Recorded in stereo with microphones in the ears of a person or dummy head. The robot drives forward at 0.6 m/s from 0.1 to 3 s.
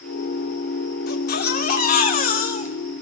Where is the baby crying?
60° left (ahead or behind), 2.5 m; by 2.9 s 45° left (ahead or behind), 3 m.